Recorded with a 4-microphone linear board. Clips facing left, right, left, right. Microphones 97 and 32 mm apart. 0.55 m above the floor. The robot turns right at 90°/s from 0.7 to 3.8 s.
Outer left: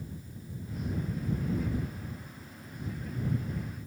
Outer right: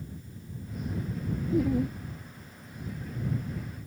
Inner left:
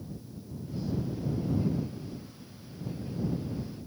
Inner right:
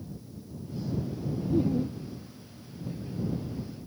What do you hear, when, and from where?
1.5 s laughter: 100° right; by 2.0 s 60° right